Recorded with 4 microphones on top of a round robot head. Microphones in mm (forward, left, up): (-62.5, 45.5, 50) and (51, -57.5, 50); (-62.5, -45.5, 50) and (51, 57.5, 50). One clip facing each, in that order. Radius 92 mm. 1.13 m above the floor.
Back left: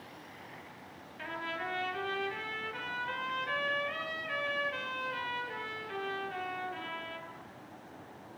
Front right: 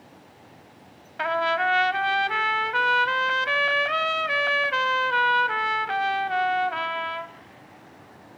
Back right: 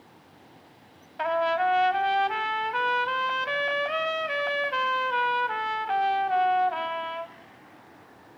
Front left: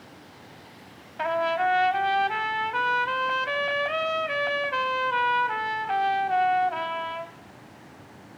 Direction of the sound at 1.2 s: 45° right.